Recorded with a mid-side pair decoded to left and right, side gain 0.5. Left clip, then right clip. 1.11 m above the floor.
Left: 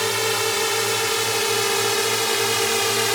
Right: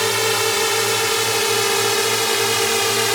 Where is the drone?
20° right; by 3.2 s 10° right.